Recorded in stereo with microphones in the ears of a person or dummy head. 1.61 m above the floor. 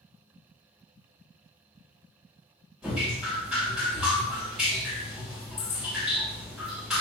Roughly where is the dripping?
Centre.